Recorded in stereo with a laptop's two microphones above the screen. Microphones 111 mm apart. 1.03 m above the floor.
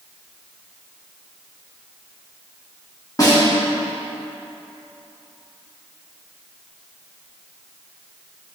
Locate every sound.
3.2 s a snare drum: 35° left (ahead or behind), 1.6 m